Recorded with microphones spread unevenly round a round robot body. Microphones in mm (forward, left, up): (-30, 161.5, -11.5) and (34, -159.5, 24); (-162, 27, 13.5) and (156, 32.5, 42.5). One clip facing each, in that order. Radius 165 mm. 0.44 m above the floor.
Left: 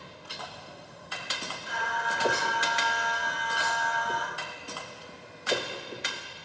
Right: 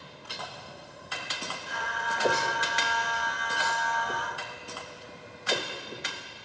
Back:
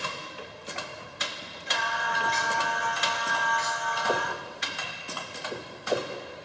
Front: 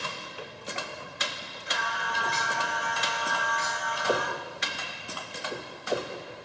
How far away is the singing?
About 2 m.